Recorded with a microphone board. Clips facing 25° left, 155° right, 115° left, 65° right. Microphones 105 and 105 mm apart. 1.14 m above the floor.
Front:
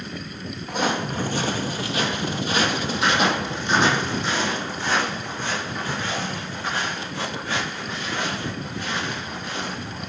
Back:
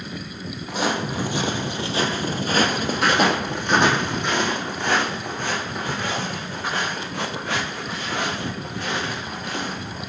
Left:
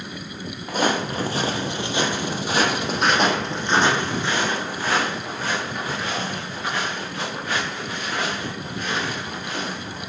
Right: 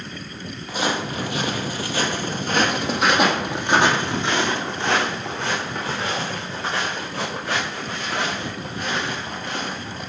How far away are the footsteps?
About 1.6 m.